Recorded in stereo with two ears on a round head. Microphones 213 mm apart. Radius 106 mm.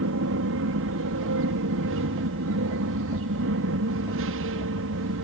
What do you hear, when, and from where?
0.0 s an aircraft: 60° right (ahead or behind)